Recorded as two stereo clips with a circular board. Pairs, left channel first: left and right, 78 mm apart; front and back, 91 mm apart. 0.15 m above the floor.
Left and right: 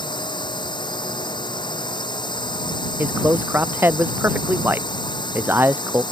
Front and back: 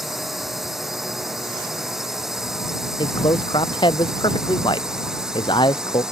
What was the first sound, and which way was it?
A drone, 90° left.